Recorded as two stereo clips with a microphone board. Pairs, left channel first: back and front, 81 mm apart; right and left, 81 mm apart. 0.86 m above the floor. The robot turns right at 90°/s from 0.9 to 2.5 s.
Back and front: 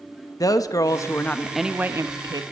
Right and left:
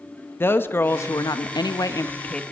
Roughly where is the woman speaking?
Behind right.